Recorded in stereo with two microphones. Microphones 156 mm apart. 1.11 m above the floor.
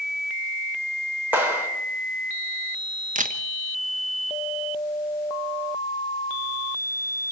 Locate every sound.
1.3 s a clap: 10° right (ahead or behind), 4 m
3.1 s a camera shutter: 55° right (ahead or behind), 1.2 m